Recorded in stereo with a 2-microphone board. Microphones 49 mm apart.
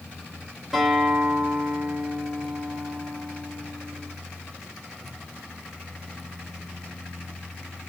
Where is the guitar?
5° right (ahead or behind), 4 m.